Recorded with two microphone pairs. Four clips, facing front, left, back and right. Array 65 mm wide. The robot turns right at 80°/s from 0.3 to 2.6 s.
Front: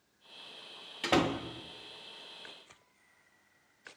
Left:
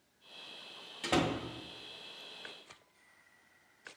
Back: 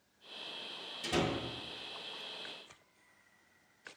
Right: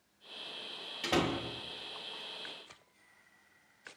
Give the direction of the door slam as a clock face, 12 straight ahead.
12 o'clock.